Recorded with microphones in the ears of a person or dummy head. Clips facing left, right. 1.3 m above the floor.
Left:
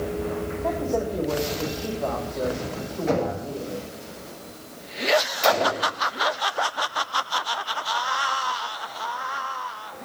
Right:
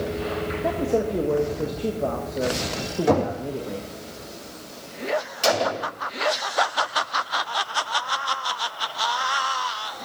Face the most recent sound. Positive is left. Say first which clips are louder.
# left 1 dB
turn(degrees=-15)  # may be behind; listen again after turning